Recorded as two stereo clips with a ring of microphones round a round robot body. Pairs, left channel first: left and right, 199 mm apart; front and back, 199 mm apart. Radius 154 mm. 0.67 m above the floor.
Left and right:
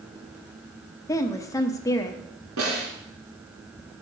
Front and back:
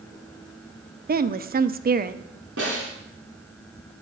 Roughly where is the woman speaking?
Behind.